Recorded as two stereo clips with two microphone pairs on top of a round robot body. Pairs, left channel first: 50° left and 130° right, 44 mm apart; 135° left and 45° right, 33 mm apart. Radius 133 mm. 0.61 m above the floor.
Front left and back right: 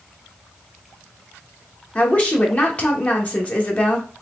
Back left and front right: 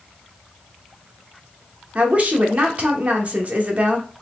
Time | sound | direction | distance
1.9 | a woman speaking | 5° right | 1.3 m